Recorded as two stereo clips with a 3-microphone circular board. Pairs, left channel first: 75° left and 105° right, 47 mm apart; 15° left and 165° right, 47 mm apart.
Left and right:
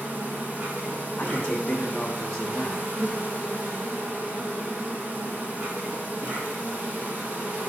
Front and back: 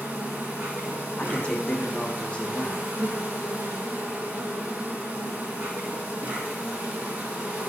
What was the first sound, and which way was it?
An insect, 135° right.